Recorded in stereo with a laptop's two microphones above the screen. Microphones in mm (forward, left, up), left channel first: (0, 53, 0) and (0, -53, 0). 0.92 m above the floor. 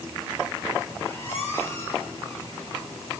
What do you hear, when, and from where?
1.0 s a squeak: 25° left (ahead or behind), 4.5 m